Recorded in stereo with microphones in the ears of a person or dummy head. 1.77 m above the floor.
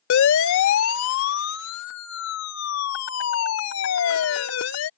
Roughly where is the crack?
I don't hear a crack.